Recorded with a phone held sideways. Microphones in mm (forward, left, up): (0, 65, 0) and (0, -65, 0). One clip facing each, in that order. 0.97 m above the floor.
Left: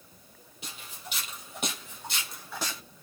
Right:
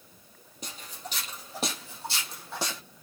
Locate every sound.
0.6 s footsteps: 40° right (ahead or behind), 1.7 m; by 2.8 s 25° right (ahead or behind), 2.5 m